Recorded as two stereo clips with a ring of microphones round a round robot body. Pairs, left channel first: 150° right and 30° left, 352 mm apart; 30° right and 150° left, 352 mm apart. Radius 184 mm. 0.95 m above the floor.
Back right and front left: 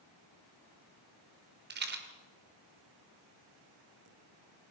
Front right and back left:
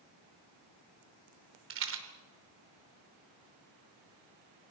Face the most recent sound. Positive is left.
turn(degrees=95)